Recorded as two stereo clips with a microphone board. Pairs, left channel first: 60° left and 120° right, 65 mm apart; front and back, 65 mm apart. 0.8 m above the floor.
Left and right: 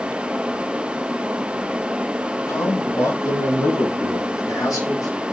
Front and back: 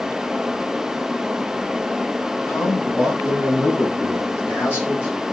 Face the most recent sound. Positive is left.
turn(degrees=55)